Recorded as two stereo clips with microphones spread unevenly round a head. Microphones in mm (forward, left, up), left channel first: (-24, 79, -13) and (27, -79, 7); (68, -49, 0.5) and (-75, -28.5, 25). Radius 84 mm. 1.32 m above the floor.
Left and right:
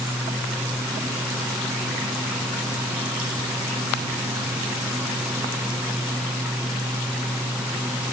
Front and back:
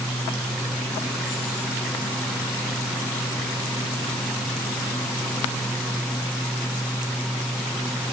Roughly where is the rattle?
I don't hear a rattle.